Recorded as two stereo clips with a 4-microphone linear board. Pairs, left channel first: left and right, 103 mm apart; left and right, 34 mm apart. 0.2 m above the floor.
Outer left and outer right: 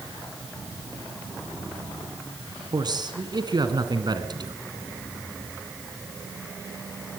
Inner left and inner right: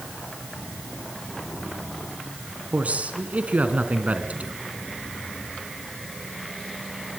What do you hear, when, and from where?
2.7 s a man speaking: 45° right (ahead or behind), 2.5 m